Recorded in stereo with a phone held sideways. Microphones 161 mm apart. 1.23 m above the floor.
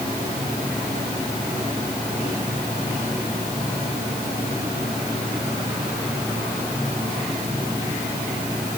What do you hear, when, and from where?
Only background noise.